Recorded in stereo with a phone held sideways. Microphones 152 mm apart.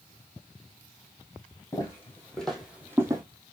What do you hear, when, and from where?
1.7 s footsteps: 25° left (ahead or behind), 2.5 m; by 3.2 s 25° right (ahead or behind), 1.9 m